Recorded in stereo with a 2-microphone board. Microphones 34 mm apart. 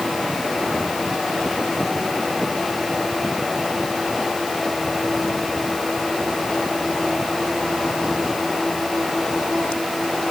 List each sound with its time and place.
Only background noise.